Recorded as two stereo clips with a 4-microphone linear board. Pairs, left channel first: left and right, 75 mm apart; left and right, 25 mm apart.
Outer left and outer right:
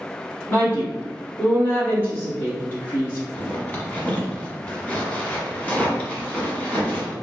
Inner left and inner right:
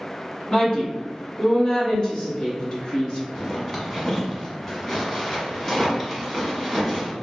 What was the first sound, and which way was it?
A woman speaking, 35° left (ahead or behind).